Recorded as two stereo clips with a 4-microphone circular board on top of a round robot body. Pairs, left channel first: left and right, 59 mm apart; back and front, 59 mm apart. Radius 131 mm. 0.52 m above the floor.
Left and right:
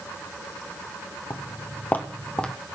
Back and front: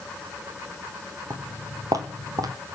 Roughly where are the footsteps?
Ahead left.